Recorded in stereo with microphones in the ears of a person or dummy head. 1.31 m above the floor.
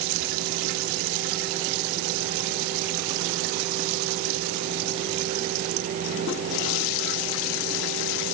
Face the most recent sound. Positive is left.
No sound to turn to.